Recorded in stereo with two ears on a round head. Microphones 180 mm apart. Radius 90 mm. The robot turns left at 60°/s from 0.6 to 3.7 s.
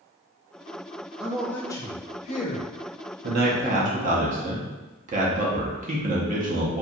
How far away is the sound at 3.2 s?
About 0.6 m.